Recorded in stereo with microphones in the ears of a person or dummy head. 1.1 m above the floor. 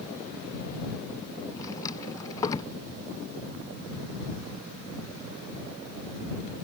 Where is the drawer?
25° left (ahead or behind).